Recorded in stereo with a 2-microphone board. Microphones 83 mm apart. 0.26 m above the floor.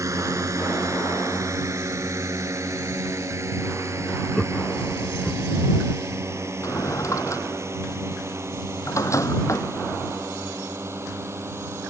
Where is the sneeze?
I don't hear a sneeze.